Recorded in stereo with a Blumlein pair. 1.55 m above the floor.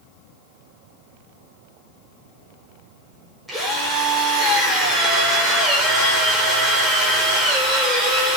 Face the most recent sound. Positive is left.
turn(degrees=-5)